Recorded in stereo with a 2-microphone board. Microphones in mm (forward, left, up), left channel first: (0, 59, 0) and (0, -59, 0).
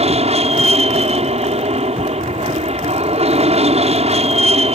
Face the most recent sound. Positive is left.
turn(degrees=-60)  # may be behind; listen again after turning